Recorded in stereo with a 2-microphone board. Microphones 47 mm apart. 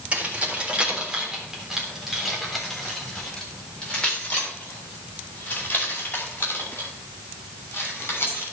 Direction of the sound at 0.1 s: 30° right (ahead or behind).